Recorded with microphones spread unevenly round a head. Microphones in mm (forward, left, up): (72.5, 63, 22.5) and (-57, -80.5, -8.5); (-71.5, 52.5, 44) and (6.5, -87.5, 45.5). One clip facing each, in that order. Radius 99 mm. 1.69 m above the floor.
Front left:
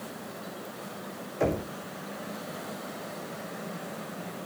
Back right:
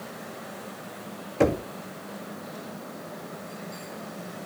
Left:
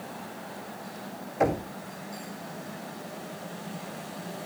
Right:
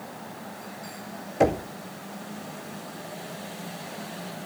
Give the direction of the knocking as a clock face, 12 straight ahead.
4 o'clock.